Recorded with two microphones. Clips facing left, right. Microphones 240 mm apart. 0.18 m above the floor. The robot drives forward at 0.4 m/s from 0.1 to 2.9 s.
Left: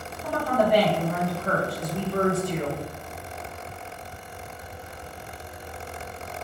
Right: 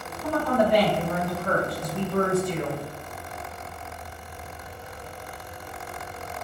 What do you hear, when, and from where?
0.2 s a woman speaking: 10° left (ahead or behind), 1.7 m